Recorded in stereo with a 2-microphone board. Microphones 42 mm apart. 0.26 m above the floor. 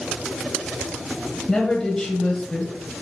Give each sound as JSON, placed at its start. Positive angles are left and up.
{"t": 1.5, "sound": "a woman speaking", "side_deg": 15, "distance_m": 0.9}